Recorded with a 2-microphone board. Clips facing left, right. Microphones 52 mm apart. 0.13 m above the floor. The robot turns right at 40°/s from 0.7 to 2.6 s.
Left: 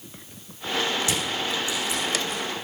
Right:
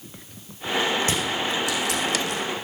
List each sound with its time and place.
1.0 s crushing: 35° right (ahead or behind), 6 m; by 2.4 s 80° right, 6 m